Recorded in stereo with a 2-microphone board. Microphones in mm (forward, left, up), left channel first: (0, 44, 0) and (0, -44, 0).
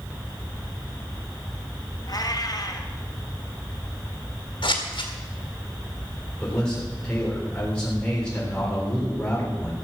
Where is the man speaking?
10° left (ahead or behind), 4 m.